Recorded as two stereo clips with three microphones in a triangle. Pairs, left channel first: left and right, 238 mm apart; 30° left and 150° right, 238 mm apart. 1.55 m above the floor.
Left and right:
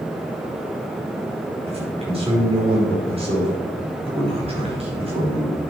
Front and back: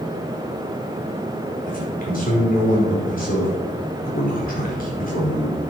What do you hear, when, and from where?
1.7 s a man speaking: 25° right, 5 m